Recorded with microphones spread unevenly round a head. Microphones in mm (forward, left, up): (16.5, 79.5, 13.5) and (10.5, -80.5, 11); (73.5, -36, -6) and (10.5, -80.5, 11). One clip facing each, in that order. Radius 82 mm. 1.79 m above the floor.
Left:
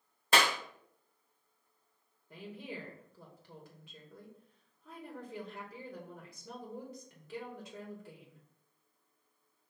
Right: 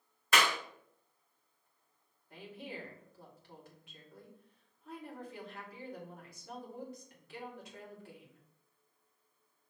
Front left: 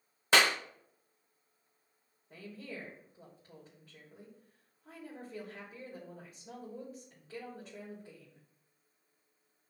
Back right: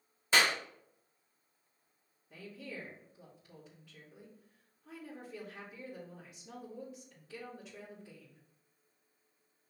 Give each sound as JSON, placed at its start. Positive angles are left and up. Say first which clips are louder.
{"t": 0.3, "sound": "a clap", "louder": "left 2 dB, front left 2 dB", "azimuth_deg": 35, "distance_m": 0.7}
{"t": 2.3, "sound": "a woman speaking", "louder": "left 2 dB, front left 1 dB", "azimuth_deg": 110, "distance_m": 2.5}